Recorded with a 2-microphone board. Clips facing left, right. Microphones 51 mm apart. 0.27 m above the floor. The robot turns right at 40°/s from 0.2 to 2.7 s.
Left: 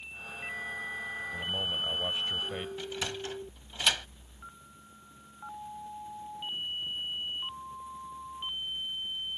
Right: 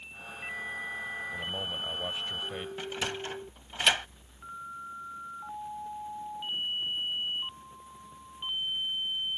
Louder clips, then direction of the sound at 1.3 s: Left 2 dB; 10° right (ahead or behind).